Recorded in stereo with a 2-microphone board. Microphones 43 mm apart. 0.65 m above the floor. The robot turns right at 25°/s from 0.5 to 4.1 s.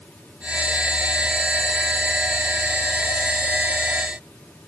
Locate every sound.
Only background noise.